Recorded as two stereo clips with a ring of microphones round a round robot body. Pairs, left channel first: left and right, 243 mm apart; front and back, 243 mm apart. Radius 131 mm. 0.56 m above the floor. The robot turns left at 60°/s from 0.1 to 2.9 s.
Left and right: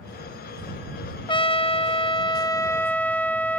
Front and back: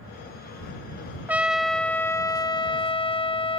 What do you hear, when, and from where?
1.3 s a trumpet: 110° left; by 3.6 s 15° left